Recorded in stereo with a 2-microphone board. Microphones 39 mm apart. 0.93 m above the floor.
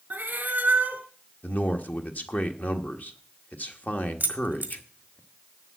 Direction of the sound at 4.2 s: 40° right (ahead or behind).